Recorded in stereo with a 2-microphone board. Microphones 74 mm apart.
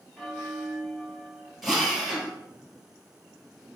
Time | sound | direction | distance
0.2 | a bell | 5° left (ahead or behind) | 1.3 m
1.6 | a drill | centre (ahead or behind) | 2.5 m